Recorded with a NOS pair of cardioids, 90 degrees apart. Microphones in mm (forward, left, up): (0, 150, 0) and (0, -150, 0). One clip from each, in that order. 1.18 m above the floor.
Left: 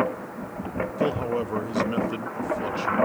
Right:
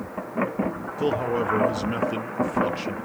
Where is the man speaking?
10° right, 1.2 m.